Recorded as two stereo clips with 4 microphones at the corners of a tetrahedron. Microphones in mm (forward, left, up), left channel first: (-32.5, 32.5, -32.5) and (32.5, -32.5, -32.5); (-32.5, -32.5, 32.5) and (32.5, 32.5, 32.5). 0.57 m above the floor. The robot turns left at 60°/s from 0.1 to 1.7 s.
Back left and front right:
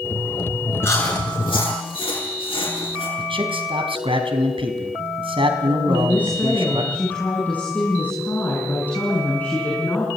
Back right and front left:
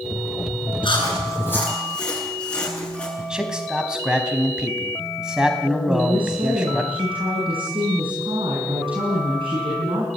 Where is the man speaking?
35° right, 4 m.